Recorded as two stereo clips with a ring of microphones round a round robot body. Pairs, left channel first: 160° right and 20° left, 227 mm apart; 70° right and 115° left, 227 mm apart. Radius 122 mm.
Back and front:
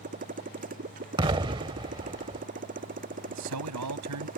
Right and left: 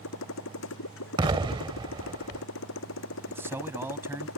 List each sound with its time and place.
0.0 s a motorcycle: 35° right
1.2 s an explosion: 65° left
3.3 s a man speaking: 30° left